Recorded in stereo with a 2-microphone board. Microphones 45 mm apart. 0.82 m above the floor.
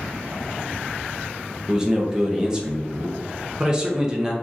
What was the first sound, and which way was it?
A man speaking, 15° right (ahead or behind).